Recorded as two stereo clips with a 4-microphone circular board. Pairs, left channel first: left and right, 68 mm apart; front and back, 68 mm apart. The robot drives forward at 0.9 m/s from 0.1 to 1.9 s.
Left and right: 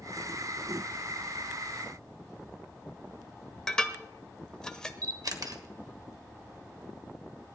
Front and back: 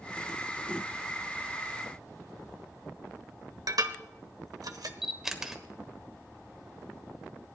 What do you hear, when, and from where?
3.7 s dishes clattering: 165° left, 1.0 m
5.0 s a camera shutter: 100° right, 1.4 m